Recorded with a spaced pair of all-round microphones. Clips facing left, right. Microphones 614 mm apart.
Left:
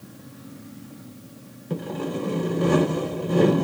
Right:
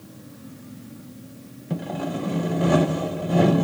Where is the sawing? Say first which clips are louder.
Even; 10° right (ahead or behind), 0.5 m.